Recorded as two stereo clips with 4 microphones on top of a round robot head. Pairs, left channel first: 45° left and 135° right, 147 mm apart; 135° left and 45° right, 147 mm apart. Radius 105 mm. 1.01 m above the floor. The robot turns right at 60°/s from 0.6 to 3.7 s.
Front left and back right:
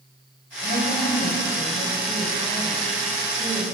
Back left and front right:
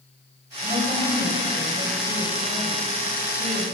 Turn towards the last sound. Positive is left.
turn(degrees=180)